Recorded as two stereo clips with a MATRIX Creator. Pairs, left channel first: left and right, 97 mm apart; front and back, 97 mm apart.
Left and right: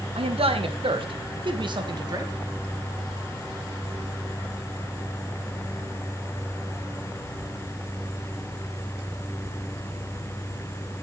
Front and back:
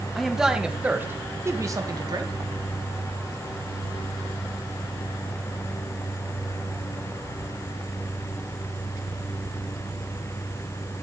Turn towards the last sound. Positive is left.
turn(degrees=-140)